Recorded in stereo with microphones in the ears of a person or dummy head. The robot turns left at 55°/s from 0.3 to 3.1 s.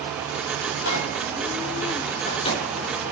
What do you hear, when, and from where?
0.7 s a microwave: 55° left (ahead or behind), 2 m; by 2.7 s 15° left (ahead or behind), 2 m